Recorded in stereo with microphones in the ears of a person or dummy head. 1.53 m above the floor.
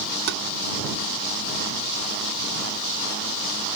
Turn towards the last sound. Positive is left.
turn(degrees=-65)  # may be behind; listen again after turning